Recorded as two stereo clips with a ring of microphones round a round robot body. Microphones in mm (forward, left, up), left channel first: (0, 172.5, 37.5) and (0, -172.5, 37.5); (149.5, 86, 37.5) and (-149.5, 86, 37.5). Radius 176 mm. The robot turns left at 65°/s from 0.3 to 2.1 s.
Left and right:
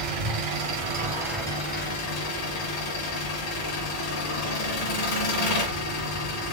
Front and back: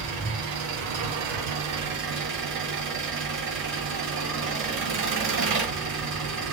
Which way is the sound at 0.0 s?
110° right.